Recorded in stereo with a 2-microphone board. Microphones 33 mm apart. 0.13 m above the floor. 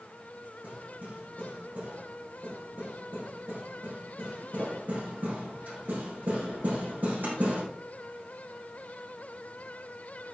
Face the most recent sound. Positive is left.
turn(degrees=-65)  # may be behind; listen again after turning